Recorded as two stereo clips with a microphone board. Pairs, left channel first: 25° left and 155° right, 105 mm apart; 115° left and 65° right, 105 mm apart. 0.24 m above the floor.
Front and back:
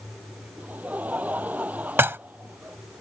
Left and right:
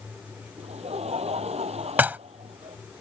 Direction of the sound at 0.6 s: 80° right.